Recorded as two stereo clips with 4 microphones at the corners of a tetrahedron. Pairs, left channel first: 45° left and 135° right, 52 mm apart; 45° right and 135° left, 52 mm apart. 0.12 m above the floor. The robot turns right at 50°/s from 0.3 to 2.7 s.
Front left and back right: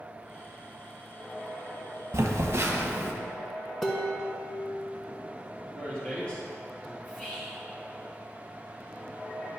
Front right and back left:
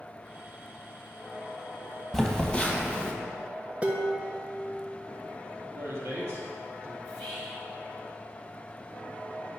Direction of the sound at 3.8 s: 125° left.